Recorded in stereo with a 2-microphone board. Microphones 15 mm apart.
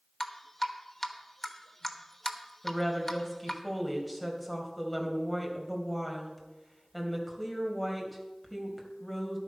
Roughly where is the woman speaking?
Centre.